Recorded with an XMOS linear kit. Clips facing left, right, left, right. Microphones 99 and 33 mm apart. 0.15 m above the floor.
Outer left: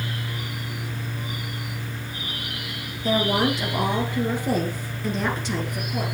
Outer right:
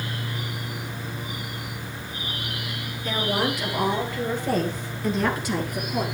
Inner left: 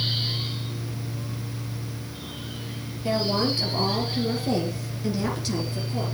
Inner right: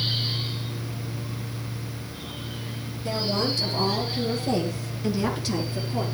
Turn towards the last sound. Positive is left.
turn(degrees=-15)  # may be behind; listen again after turning